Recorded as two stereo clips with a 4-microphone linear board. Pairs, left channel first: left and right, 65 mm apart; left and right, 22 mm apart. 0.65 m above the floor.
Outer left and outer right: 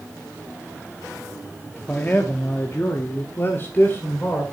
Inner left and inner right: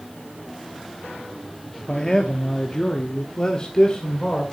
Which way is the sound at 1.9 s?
25° left (ahead or behind).